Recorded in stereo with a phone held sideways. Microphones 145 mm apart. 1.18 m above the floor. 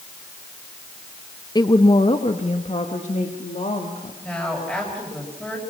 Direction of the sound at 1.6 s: 25° left (ahead or behind).